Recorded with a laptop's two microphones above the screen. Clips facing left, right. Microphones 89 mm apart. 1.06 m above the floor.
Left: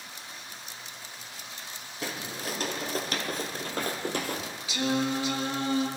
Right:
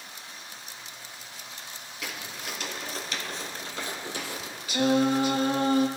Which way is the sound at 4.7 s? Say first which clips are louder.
Right 5 dB; 50° right (ahead or behind).